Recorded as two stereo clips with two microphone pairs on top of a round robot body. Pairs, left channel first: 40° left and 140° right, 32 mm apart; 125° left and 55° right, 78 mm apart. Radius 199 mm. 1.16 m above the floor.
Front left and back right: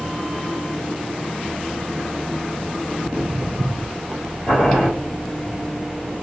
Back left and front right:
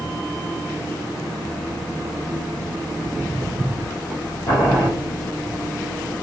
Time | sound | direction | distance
3.0 | footsteps | 120° right | 1.6 m
4.5 | boiling | 130° left | 1.0 m